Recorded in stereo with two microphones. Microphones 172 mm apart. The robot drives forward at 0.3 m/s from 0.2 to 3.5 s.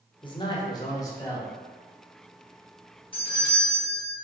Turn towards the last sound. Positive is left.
turn(degrees=30)  # may be behind; listen again after turning